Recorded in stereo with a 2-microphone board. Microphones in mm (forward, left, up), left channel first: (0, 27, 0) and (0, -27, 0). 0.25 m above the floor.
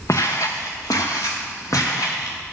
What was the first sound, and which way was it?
Footsteps, 60° left (ahead or behind).